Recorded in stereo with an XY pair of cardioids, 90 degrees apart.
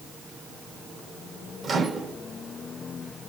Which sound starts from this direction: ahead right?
A microwave, at 1.6 s.